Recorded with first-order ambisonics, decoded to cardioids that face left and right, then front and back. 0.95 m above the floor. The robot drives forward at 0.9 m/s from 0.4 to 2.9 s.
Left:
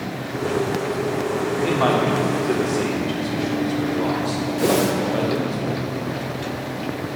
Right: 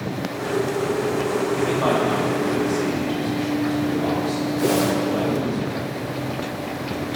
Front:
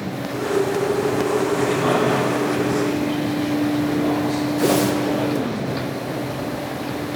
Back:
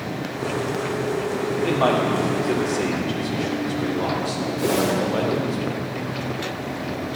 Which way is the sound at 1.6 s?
125° left.